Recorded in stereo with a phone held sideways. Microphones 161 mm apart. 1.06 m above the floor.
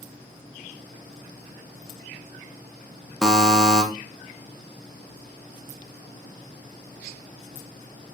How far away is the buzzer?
About 0.6 m.